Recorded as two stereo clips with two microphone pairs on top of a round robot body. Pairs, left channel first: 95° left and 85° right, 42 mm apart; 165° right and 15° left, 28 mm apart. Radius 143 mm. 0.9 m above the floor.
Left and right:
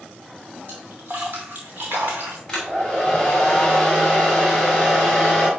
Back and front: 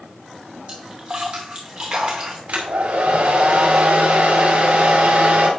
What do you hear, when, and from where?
0.7 s a splash: 35° right, 0.6 m
2.5 s a hair dryer: 15° left, 2 m